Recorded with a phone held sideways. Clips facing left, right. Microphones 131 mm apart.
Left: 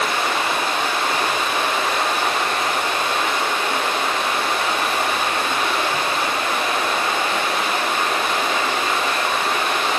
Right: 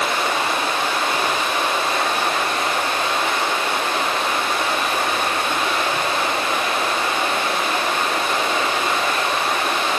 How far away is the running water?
About 4.5 m.